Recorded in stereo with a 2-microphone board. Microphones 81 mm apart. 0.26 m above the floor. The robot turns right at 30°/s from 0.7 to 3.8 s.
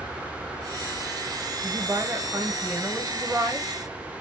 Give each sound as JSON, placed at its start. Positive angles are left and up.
{"t": 1.6, "sound": "a woman speaking", "side_deg": -25, "distance_m": 1.4}